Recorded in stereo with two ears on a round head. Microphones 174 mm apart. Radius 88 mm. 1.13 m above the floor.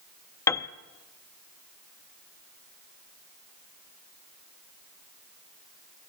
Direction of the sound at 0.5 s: 15° left (ahead or behind).